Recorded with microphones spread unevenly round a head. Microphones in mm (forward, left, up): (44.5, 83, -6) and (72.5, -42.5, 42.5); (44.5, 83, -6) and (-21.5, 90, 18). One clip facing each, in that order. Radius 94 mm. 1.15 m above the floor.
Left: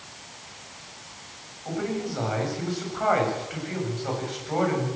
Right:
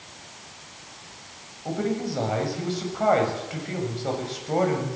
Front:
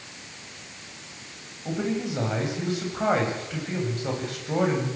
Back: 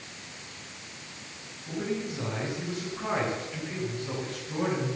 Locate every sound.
1.6 s a man speaking: 25° right, 8.5 m